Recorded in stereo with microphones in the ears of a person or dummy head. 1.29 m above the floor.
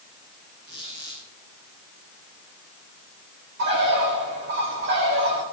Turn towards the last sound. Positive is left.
turn(degrees=-55)  # may be behind; listen again after turning